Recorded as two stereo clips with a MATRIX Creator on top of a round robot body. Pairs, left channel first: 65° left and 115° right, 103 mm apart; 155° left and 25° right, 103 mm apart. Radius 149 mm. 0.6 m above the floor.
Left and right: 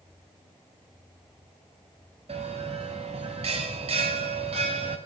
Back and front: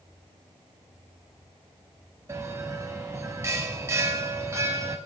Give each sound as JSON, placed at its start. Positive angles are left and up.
{"t": 2.3, "sound": "a bell", "azimuth_deg": -90, "distance_m": 0.7}